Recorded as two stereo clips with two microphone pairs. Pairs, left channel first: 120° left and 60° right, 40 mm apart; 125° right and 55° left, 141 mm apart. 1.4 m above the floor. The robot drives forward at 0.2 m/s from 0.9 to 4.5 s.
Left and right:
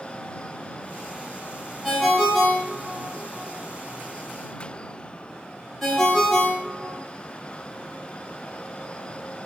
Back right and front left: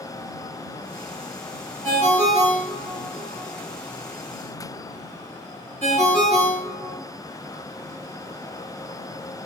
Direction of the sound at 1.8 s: 30° left.